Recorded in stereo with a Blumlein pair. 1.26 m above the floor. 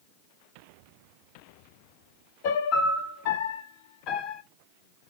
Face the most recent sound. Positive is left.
turn(degrees=40)